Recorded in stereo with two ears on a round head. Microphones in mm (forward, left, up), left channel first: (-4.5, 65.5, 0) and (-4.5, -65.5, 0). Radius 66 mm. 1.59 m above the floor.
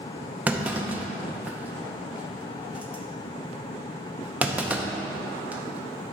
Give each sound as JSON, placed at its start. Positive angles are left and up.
{"t": 0.5, "sound": "a clunk", "side_deg": -10, "distance_m": 0.7}